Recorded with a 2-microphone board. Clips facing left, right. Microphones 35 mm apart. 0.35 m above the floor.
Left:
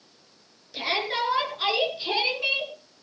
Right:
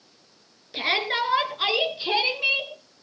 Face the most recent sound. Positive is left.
turn(degrees=-10)  # may be behind; listen again after turning